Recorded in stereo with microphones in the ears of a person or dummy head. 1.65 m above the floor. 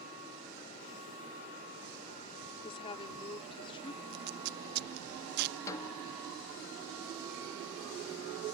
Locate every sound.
2.6 s a woman speaking: 35° left (ahead or behind)
4.1 s tape being pulled: 50° right (ahead or behind)
5.7 s a snare drum: 20° left (ahead or behind)